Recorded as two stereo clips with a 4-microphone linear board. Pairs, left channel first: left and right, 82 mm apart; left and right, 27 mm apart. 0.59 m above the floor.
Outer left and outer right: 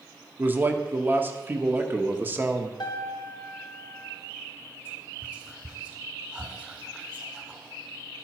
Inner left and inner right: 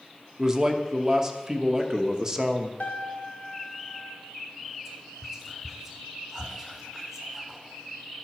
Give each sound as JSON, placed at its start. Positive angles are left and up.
{"t": 0.4, "sound": "a man speaking", "side_deg": -20, "distance_m": 0.9}
{"t": 2.8, "sound": "a piano", "side_deg": 60, "distance_m": 1.7}
{"t": 4.8, "sound": "whispering", "side_deg": -5, "distance_m": 1.7}